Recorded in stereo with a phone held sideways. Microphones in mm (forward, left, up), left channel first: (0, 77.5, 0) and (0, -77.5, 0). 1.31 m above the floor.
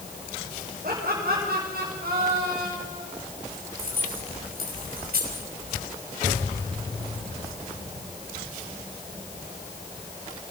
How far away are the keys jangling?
About 5.5 m.